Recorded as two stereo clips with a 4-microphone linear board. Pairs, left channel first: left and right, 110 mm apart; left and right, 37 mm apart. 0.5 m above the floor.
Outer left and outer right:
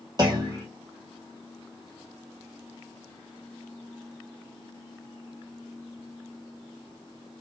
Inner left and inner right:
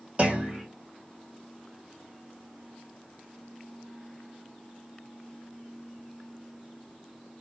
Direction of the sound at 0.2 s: 35° right (ahead or behind).